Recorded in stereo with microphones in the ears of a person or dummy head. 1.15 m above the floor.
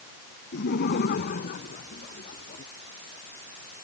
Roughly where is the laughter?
Left.